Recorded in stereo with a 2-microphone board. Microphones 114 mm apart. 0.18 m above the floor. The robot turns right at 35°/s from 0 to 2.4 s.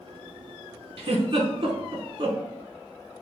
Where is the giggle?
50° right (ahead or behind), 0.5 m.